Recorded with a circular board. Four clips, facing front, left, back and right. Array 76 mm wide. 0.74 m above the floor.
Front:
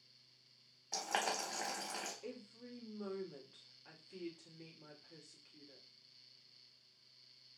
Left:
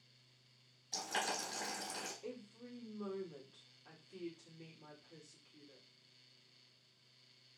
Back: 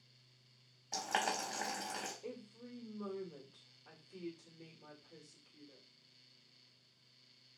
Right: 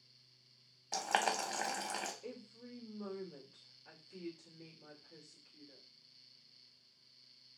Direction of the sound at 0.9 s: 90° right.